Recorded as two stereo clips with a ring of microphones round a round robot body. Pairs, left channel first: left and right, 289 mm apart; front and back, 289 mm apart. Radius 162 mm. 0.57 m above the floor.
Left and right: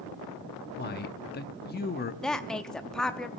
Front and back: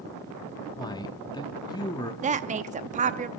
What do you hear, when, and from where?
0.8 s a man speaking: 65° left, 0.8 m
2.2 s a woman speaking: 175° left, 0.6 m